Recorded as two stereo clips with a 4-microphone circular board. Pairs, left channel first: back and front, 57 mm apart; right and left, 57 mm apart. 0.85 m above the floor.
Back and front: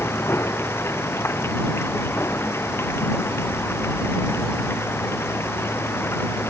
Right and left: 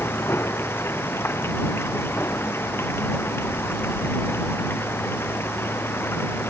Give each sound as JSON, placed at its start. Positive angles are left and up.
{"t": 0.0, "sound": "running water", "azimuth_deg": -135}